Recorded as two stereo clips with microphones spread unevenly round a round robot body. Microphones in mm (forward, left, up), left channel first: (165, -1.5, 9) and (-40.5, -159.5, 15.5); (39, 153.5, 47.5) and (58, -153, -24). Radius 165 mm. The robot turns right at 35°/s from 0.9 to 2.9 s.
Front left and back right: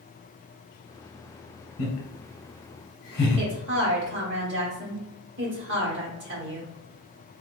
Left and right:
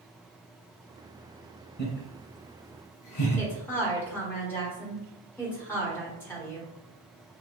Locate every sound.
1.8 s laughter: 30° left, 1.7 m; by 3.5 s 70° left, 1.7 m
3.4 s a woman speaking: 170° right, 1.1 m